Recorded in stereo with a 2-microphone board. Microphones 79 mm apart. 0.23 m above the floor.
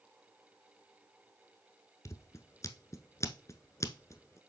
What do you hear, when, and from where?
2.0 s scissors: 40° left (ahead or behind), 0.9 m